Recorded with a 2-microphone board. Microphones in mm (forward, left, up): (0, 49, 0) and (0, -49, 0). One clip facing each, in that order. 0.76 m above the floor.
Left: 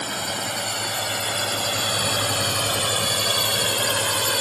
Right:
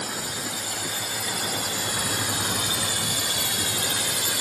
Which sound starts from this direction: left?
A drone, at 0.0 s.